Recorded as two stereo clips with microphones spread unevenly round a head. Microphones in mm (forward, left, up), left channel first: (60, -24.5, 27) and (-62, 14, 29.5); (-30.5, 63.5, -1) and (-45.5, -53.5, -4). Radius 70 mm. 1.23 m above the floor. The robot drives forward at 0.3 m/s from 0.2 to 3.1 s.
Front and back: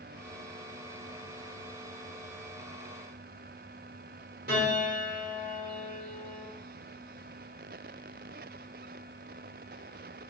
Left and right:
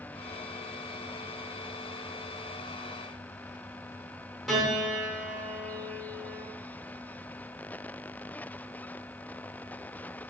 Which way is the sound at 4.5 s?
170° left.